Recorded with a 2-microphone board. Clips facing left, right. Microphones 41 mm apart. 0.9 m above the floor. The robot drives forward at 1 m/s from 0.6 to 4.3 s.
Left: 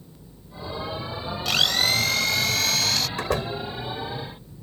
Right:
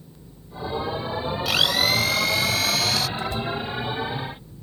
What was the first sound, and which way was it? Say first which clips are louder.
A blender: even; 5° right (ahead or behind).